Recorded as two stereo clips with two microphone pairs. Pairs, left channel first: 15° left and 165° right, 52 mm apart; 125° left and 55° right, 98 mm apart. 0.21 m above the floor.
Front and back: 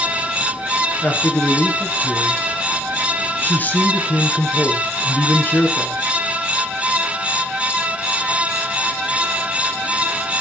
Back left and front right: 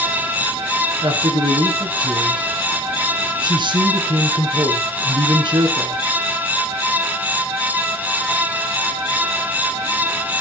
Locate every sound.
1.0 s a man speaking: 35° right, 3 m